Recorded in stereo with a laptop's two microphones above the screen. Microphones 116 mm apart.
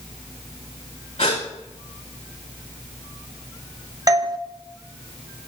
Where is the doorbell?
30° right (ahead or behind), 0.7 m.